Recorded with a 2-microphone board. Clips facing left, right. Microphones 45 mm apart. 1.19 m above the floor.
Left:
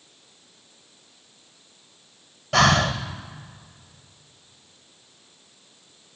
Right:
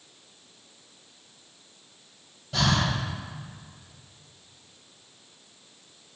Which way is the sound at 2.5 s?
60° left (ahead or behind).